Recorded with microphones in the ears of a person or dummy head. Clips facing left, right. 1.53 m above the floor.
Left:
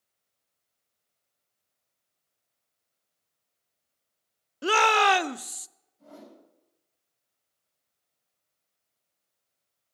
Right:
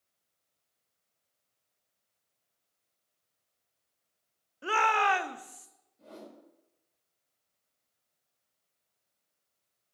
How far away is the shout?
About 0.7 m.